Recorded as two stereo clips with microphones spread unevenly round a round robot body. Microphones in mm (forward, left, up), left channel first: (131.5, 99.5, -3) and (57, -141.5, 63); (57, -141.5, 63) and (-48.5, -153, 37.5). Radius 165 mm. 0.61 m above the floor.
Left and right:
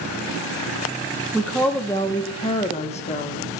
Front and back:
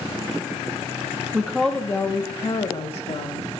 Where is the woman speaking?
145° left, 1.0 m; by 3.5 s 25° left, 1.5 m.